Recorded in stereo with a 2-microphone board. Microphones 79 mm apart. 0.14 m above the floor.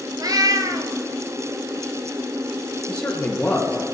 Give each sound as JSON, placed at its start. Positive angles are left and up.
{"t": 0.2, "sound": "a cat meowing", "side_deg": -50, "distance_m": 0.8}
{"t": 2.9, "sound": "a man speaking", "side_deg": 15, "distance_m": 2.5}